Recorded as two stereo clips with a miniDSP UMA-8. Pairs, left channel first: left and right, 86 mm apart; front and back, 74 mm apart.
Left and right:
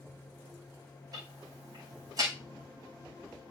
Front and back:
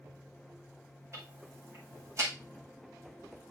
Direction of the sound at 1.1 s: 130° right.